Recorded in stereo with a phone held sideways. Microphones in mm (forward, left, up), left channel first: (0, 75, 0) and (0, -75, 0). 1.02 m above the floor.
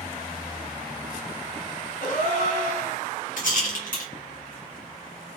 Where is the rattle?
65° left (ahead or behind), 1.1 m.